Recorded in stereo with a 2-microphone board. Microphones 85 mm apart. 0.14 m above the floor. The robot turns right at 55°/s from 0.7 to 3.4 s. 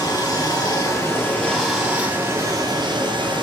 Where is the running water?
125° left, 3 m; by 3.4 s 85° right, 3 m.